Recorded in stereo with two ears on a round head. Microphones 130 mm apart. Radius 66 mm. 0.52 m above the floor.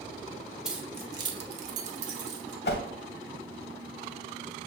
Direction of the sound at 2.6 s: 75° left (ahead or behind).